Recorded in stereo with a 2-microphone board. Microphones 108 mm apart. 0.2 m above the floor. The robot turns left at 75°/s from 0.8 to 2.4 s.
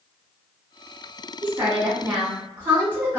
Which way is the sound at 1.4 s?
20° right (ahead or behind).